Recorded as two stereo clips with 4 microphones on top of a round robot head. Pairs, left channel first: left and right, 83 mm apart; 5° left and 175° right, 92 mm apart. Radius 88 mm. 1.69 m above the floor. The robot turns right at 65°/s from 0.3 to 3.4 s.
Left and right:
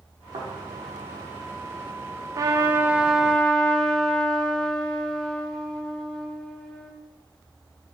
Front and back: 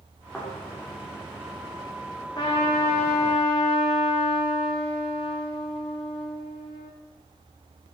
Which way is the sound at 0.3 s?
80° right.